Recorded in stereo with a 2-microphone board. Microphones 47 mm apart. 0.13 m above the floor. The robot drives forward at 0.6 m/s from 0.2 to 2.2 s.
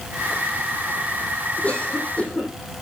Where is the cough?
30° left (ahead or behind), 6.5 m.